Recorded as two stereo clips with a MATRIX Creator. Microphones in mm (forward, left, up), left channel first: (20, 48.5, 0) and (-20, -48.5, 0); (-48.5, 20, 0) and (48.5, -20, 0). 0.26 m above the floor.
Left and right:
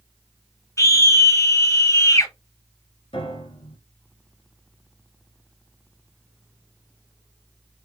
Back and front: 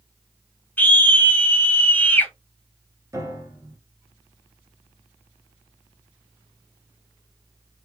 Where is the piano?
40° left, 1.5 m.